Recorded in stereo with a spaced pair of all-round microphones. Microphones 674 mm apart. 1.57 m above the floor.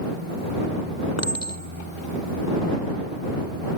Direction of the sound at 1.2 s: 20° left (ahead or behind).